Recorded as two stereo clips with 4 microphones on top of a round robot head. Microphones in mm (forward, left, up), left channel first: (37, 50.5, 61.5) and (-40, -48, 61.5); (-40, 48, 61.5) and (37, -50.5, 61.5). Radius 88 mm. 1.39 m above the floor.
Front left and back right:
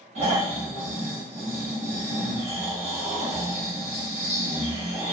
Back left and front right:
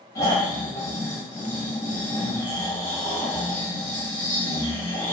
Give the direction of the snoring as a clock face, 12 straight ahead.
6 o'clock.